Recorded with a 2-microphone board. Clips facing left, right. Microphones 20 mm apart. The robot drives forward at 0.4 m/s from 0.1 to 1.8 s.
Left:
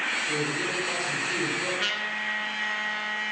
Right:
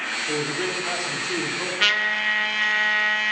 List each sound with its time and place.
0.3 s a man speaking: 90° right, 3.5 m; by 1.7 s 80° right, 3.5 m
1.8 s a trumpet: 35° right (ahead or behind), 0.8 m